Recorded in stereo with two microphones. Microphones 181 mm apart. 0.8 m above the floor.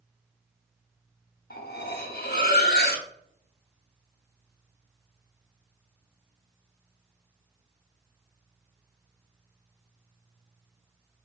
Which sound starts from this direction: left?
Cutlery clinking, at 1.5 s.